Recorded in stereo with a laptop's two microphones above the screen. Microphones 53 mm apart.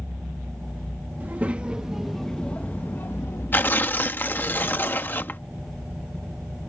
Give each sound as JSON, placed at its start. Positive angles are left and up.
{"t": 1.2, "sound": "a child speaking", "side_deg": -30}
{"t": 3.5, "sound": "tearing paper", "side_deg": 40}